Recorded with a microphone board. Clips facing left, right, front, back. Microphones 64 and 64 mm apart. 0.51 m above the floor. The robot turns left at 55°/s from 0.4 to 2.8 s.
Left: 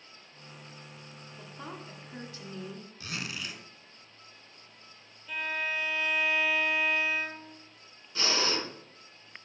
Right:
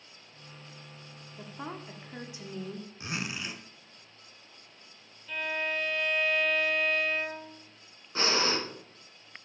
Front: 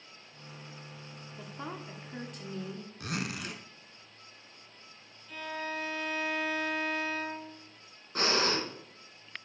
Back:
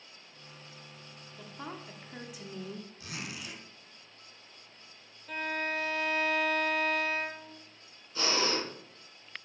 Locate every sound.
1.4 s a woman speaking: 55° right, 1.1 m; by 2.9 s 135° right, 1.1 m
3.0 s a zipper: 25° right, 1.2 m
5.3 s a violin: 170° left, 1.2 m
8.2 s breathing: 40° right, 2.5 m